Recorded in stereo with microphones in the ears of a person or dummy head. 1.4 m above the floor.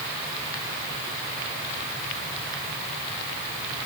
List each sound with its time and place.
Only background noise.